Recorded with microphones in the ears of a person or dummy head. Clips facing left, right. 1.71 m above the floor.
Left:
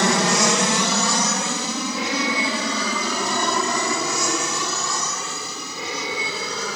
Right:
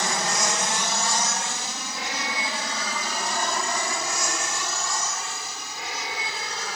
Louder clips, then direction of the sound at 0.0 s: Left 8 dB; 60° left (ahead or behind).